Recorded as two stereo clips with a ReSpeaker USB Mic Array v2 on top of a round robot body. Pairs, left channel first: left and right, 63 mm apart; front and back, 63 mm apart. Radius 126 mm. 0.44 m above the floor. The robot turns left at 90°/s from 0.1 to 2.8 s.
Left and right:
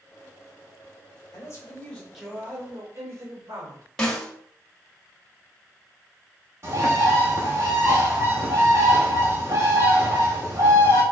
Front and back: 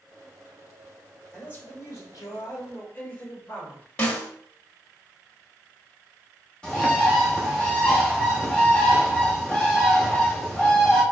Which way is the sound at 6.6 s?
75° right.